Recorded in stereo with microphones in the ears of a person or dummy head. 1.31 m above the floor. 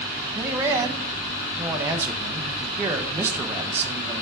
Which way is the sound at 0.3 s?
20° right (ahead or behind).